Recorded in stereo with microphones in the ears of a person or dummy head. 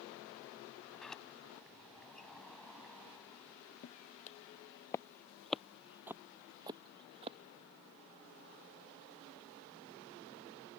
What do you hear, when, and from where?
0.9 s a sliding door: 5° left (ahead or behind)
3.8 s footsteps: 40° left (ahead or behind); by 7.4 s 30° right (ahead or behind)